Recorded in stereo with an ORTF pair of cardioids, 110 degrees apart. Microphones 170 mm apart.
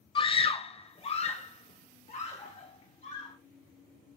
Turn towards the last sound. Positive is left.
turn(degrees=40)